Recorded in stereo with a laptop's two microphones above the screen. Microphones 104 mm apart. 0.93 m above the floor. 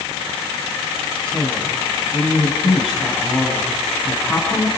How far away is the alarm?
No alarm in this recording.